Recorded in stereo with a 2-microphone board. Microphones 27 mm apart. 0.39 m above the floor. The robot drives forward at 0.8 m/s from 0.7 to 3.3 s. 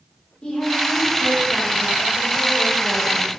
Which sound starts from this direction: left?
A woman speaking, at 0.4 s.